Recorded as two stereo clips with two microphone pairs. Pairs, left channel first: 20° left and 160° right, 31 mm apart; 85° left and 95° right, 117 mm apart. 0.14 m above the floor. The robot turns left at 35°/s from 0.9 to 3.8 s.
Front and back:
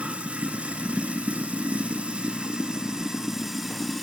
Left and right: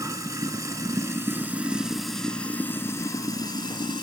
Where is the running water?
145° right, 0.7 m; by 4.0 s 115° left, 0.7 m.